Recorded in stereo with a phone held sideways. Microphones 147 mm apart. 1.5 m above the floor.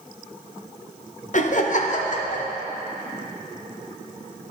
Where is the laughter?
60° left (ahead or behind), 0.7 m.